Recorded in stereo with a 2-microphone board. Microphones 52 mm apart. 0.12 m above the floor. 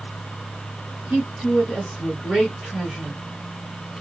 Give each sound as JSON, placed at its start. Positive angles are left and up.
{"t": 1.1, "sound": "a woman speaking", "side_deg": -10, "distance_m": 1.2}